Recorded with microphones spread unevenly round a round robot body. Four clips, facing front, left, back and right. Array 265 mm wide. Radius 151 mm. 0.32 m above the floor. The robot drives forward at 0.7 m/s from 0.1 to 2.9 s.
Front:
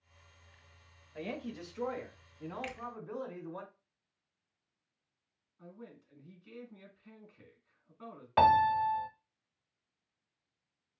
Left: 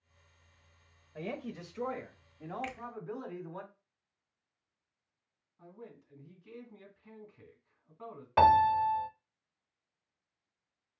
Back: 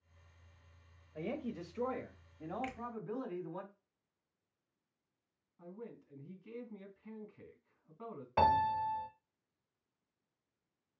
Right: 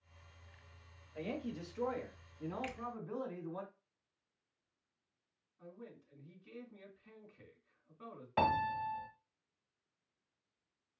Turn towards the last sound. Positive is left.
turn(degrees=110)